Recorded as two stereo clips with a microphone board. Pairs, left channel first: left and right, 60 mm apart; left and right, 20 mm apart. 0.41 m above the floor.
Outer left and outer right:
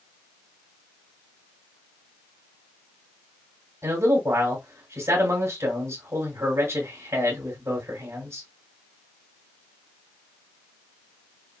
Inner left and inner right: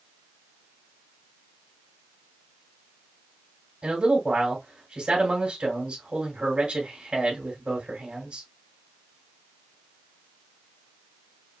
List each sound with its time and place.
3.8 s a man speaking: 50° right (ahead or behind), 2.5 m